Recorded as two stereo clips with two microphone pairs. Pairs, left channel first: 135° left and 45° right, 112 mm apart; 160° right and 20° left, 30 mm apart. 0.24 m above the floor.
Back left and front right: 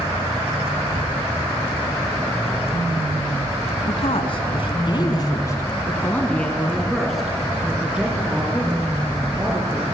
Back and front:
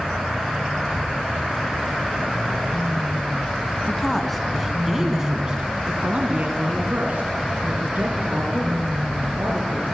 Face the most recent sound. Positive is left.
turn(degrees=25)